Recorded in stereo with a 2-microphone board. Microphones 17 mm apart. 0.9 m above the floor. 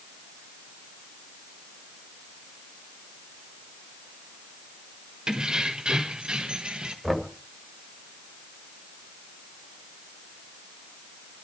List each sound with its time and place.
5.3 s keys jangling: 50° right (ahead or behind), 2 m; by 6.9 s 70° right (ahead or behind), 2.5 m
7.0 s knocking: centre (ahead or behind), 2 m